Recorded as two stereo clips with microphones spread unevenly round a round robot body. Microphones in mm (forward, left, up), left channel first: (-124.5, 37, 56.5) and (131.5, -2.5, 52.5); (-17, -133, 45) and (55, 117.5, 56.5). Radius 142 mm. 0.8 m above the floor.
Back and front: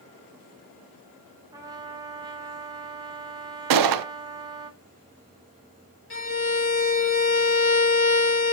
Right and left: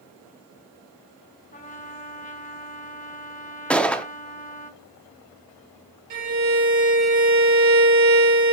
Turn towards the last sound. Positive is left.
turn(degrees=130)